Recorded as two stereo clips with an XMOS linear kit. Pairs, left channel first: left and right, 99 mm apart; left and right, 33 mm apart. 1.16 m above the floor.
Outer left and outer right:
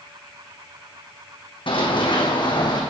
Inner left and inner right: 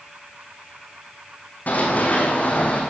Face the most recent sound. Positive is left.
turn(degrees=45)  # may be behind; listen again after turning